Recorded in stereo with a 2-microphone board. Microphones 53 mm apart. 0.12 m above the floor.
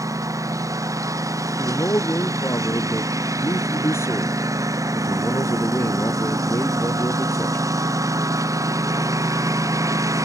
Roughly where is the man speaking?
Left.